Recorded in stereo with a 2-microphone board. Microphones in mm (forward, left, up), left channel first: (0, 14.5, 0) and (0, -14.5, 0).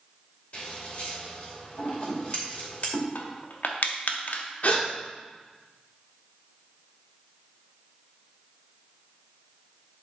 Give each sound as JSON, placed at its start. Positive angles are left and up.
{"t": 0.5, "sound": "scissors", "side_deg": 50, "distance_m": 2.5}
{"t": 3.1, "sound": "crushing", "side_deg": 70, "distance_m": 0.8}
{"t": 4.6, "sound": "a gasp", "side_deg": 65, "distance_m": 1.5}